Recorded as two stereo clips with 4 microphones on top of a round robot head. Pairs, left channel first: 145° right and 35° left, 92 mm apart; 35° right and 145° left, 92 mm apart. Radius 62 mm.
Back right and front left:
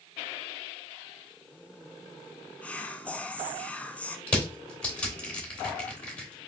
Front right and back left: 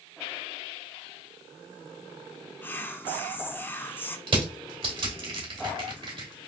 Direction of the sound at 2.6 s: 80° right.